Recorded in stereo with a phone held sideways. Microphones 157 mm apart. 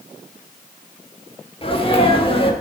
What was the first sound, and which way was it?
A sneeze, 35° left (ahead or behind).